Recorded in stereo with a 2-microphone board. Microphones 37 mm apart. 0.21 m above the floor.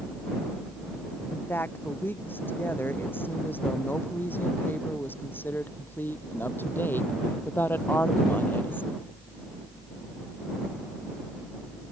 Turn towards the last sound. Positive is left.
turn(degrees=75)  # may be behind; listen again after turning